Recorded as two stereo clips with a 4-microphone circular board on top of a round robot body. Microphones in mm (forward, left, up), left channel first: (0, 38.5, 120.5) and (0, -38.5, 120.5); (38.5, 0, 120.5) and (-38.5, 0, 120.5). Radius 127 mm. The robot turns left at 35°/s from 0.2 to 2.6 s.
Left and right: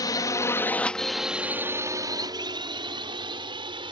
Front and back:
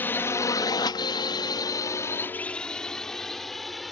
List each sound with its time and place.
0.0 s a drone: 60° left; by 3.9 s 90° right